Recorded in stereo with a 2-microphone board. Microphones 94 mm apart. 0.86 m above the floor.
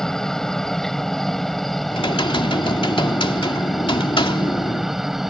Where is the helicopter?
5° left (ahead or behind); by 5.3 s 5° right (ahead or behind).